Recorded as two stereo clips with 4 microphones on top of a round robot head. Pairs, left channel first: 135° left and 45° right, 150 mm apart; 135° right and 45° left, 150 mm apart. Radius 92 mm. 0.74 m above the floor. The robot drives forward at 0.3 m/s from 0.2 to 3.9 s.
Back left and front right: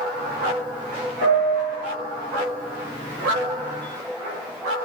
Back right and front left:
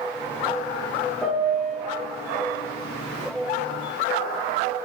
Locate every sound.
1.2 s a piano: 140° left, 0.6 m; by 1.8 s 150° left, 0.7 m